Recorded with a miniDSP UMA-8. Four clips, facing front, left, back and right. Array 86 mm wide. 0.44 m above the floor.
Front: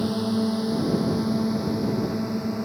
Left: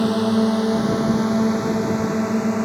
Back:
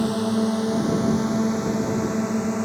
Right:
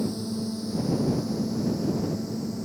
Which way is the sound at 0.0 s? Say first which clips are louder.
Left 12 dB, back 2 dB; 100° left.